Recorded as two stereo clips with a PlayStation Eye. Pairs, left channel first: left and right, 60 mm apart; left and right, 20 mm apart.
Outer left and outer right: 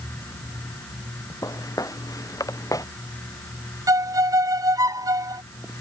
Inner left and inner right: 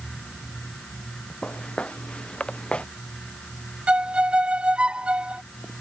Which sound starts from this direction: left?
Footsteps, at 1.4 s.